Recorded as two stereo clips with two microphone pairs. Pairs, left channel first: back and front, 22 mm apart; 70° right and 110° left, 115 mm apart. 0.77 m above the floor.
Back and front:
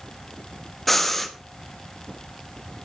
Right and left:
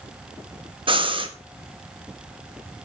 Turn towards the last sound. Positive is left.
turn(degrees=100)